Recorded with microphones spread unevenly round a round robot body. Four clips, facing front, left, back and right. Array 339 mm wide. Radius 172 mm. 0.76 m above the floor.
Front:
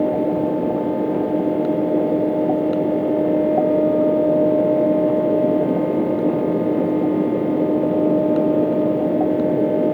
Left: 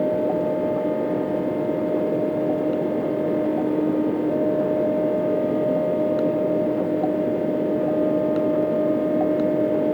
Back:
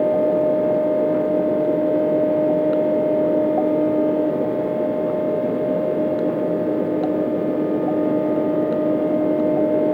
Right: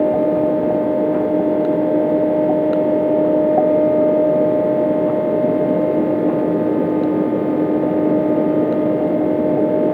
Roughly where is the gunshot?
I don't hear a gunshot.